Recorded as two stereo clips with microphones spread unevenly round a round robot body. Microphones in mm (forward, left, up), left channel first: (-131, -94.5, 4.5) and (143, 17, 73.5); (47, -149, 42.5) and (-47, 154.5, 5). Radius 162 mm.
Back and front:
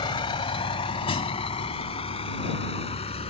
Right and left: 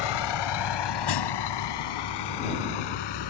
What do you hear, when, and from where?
0.0 s a vehicle: 80° right; by 3.3 s 85° right